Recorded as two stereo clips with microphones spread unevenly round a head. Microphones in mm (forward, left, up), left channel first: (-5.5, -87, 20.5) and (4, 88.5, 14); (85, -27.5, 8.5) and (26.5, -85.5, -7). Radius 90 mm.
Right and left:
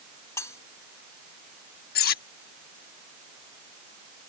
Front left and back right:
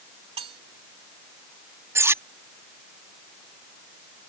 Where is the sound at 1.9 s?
75° right.